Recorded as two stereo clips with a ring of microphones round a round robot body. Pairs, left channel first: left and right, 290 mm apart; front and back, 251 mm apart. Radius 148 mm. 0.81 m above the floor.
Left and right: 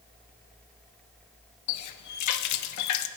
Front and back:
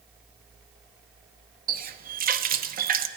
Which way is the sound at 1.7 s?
120° left.